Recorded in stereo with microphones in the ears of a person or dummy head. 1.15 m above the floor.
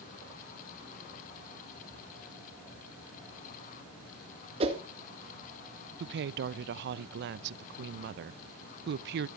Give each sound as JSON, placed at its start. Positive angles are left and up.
{"t": 4.6, "sound": "a whoosh", "side_deg": -35, "distance_m": 1.9}
{"t": 6.0, "sound": "a woman speaking", "side_deg": -60, "distance_m": 0.5}